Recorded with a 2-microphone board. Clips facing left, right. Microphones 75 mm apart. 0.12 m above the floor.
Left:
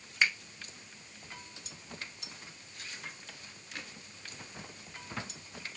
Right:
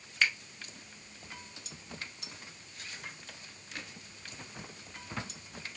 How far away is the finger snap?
About 0.9 m.